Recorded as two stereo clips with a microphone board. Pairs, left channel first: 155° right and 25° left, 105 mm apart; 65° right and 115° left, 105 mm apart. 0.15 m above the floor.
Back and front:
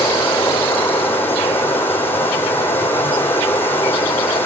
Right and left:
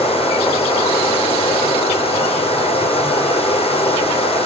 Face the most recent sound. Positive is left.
turn(degrees=-85)